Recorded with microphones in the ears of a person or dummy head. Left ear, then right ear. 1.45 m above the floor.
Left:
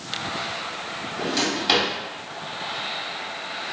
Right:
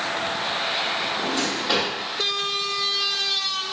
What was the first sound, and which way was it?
A drawer, 25° left (ahead or behind).